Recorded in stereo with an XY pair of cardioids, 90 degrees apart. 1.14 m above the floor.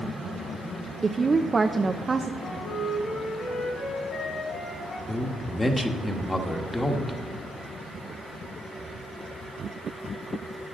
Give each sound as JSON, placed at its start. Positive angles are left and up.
{"t": 1.0, "sound": "a woman speaking", "azimuth_deg": -35, "distance_m": 0.6}
{"t": 2.4, "sound": "a flute", "azimuth_deg": 70, "distance_m": 4.0}
{"t": 5.1, "sound": "a man speaking", "azimuth_deg": 20, "distance_m": 1.4}